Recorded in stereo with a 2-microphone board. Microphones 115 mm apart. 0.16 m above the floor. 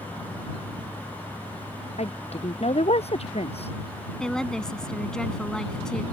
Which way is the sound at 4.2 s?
5° left (ahead or behind).